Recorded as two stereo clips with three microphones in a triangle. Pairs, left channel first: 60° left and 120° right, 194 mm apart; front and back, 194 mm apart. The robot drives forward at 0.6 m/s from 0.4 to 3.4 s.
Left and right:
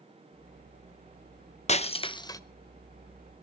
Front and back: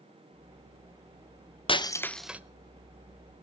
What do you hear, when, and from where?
1.7 s breaking glass: 40° left, 0.7 m; by 2.4 s 110° left, 0.6 m